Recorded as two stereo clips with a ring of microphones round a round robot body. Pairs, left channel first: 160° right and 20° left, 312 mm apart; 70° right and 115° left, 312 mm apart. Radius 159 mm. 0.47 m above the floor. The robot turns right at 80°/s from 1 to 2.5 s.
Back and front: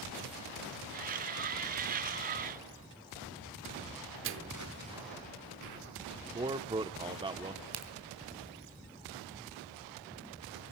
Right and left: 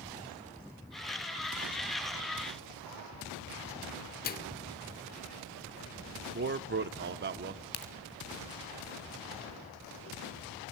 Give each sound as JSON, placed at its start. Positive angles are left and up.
{"t": 4.2, "sound": "a microwave", "azimuth_deg": -15, "distance_m": 0.9}
{"t": 6.3, "sound": "a man speaking", "azimuth_deg": 85, "distance_m": 0.8}
{"t": 7.7, "sound": "a crack", "azimuth_deg": -20, "distance_m": 2.5}